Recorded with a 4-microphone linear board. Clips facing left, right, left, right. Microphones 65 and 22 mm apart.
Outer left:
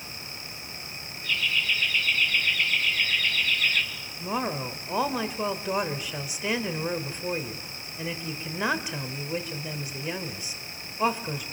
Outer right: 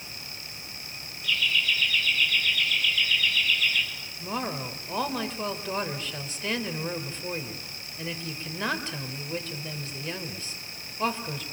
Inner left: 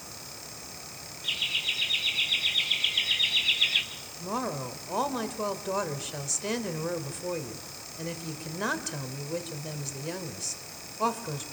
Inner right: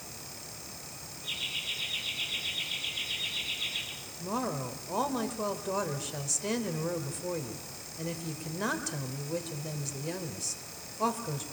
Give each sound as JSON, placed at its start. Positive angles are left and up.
{"t": 1.2, "sound": "laughter", "side_deg": 40, "distance_m": 7.0}
{"t": 4.2, "sound": "a woman speaking", "side_deg": 15, "distance_m": 2.5}